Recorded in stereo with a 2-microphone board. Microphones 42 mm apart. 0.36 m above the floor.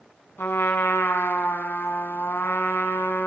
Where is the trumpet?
75° left (ahead or behind), 2.5 m.